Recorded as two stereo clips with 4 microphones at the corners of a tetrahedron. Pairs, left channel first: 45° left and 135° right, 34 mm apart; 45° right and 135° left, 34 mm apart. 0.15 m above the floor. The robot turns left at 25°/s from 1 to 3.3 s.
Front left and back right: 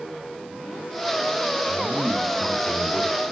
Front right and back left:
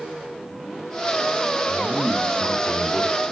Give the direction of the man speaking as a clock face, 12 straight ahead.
12 o'clock.